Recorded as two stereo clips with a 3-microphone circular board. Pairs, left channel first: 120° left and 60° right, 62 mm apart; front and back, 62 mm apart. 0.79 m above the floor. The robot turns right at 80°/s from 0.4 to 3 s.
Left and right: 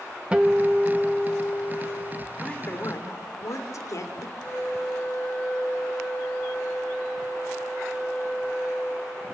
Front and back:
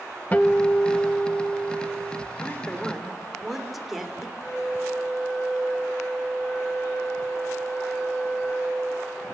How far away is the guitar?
About 1.1 m.